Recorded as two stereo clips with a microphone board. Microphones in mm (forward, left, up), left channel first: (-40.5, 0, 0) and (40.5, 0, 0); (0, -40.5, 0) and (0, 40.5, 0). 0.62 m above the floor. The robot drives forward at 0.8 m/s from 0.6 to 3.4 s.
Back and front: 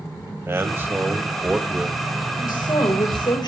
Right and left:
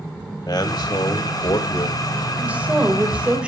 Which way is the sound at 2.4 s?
160° left.